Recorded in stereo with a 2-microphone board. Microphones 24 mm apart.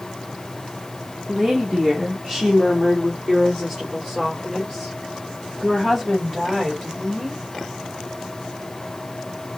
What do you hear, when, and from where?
1.3 s a woman speaking: 10° right (ahead or behind), 1.1 m; by 7.4 s 5° left (ahead or behind), 4 m